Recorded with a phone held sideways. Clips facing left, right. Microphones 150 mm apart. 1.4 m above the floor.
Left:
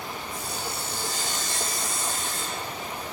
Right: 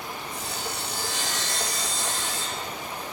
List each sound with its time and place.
0.3 s sawing: 75° right (ahead or behind), 7.5 m